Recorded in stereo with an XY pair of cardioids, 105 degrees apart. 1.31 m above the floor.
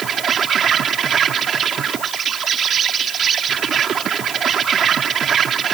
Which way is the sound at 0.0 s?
55° right.